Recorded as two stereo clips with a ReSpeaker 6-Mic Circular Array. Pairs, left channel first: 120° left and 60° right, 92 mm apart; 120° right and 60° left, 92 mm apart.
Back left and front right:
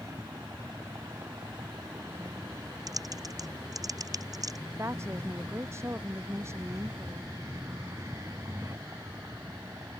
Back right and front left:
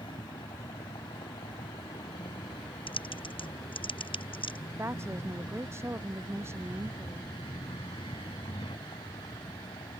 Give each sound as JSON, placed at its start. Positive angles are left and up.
{"t": 0.0, "sound": "a vehicle", "azimuth_deg": -115}
{"t": 2.9, "sound": "typing on a keyboard", "azimuth_deg": -105}
{"t": 4.7, "sound": "a woman speaking", "azimuth_deg": 0}